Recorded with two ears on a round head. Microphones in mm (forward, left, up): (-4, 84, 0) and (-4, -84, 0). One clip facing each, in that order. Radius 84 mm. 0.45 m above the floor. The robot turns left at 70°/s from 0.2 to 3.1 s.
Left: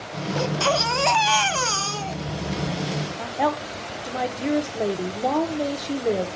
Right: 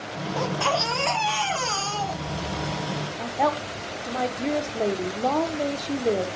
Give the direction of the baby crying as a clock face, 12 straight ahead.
7 o'clock.